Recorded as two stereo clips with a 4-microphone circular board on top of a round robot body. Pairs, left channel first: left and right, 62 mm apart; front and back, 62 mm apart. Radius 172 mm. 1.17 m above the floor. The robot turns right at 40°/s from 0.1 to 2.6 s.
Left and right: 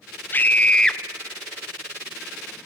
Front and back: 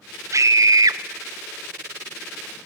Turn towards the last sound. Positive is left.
turn(degrees=-125)